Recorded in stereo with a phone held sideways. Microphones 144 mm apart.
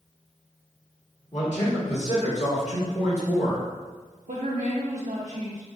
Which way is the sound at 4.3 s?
80° right.